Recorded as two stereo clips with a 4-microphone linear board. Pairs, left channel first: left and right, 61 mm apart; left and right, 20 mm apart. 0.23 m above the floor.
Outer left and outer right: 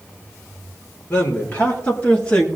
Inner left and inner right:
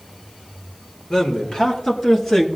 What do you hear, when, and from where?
1.1 s a man speaking: 30° left (ahead or behind), 4 m; by 2.5 s 15° left (ahead or behind), 2.5 m